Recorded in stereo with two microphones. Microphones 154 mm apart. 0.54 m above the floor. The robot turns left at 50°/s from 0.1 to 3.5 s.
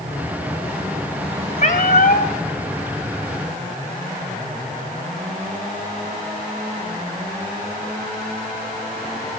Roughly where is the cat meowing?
Behind left.